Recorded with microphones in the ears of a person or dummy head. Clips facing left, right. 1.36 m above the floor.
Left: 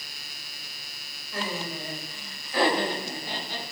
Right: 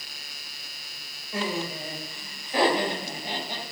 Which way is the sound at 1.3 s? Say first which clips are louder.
Right 3 dB; 20° right (ahead or behind).